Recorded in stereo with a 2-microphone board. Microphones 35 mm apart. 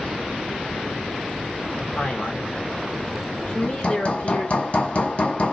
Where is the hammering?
40° left (ahead or behind), 1.1 m.